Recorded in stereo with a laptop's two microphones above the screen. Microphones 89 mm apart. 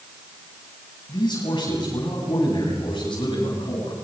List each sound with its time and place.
1.1 s a man speaking: 55° left (ahead or behind), 9 m; by 3.9 s 65° left (ahead or behind), 10 m